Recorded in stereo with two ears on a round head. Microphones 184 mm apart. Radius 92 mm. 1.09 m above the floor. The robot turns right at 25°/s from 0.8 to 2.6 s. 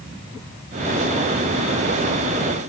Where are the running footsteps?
No running footsteps in this recording.